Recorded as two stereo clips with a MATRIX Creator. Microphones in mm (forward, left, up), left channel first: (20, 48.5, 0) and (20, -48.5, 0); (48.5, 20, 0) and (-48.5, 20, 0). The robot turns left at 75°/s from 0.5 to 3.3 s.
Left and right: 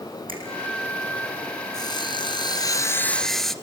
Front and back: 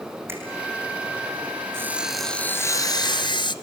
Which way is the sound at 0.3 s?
115° right.